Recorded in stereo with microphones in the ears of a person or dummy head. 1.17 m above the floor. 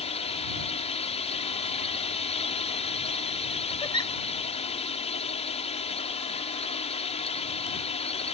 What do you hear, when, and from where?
0.0 s a drone: 25° left (ahead or behind)
3.8 s a giggle: 15° left (ahead or behind)